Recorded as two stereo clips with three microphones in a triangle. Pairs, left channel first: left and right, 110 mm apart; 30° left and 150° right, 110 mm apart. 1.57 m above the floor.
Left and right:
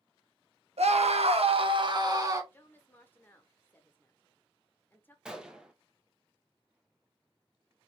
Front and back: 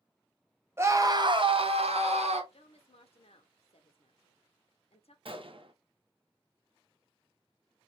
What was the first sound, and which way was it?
A scream, 85° right.